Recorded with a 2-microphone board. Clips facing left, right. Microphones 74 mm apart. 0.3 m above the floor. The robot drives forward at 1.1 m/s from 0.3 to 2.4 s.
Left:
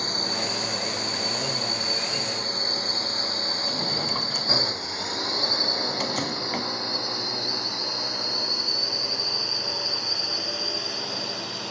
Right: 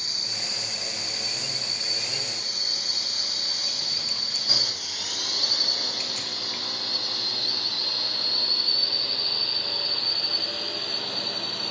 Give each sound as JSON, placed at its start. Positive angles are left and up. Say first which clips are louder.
{"t": 0.0, "sound": "a drone", "louder": "left 10 dB", "side_deg": 45}
{"t": 3.7, "sound": "a drawer", "louder": "left 10 dB", "side_deg": 55}